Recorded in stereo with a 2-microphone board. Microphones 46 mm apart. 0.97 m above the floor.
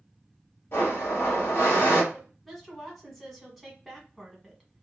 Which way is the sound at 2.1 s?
Centre (ahead or behind).